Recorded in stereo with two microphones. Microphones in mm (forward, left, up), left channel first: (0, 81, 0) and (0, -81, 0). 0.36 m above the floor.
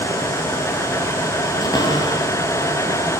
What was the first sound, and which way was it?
A cupboard door, 20° left (ahead or behind).